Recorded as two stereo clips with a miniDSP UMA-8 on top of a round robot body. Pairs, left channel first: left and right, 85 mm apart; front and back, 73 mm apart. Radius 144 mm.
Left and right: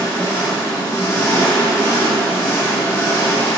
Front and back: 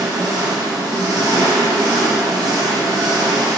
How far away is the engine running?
About 1.1 m.